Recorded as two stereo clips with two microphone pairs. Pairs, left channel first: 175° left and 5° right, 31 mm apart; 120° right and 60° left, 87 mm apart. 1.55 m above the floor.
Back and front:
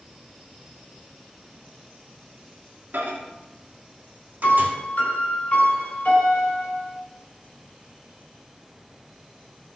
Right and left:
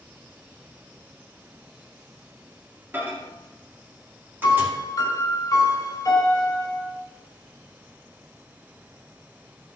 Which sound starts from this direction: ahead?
A microwave, at 2.9 s.